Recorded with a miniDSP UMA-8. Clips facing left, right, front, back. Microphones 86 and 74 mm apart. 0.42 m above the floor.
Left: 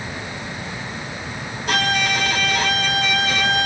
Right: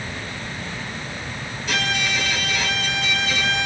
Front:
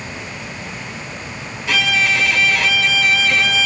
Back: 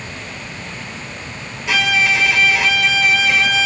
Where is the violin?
105° left, 1.2 m.